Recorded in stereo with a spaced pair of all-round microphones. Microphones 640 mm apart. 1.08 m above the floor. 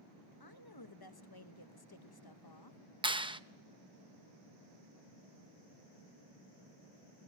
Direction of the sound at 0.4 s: 35° left (ahead or behind).